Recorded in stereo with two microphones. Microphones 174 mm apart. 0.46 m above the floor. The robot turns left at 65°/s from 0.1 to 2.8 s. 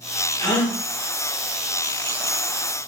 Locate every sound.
0.4 s a gasp: 25° left (ahead or behind), 1.2 m; by 0.8 s 10° left (ahead or behind), 1.2 m